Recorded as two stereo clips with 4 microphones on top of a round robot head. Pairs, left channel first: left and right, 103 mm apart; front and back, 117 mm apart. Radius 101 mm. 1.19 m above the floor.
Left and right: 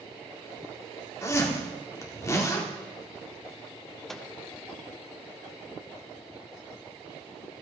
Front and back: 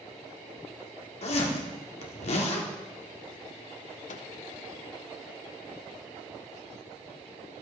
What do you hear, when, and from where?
1.2 s a zipper: 30° left, 1.9 m
4.1 s a microwave: 5° left, 0.9 m